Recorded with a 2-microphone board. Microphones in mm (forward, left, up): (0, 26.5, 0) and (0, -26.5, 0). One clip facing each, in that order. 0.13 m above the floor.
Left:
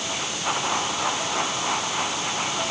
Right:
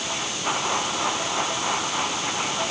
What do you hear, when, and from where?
Only background noise.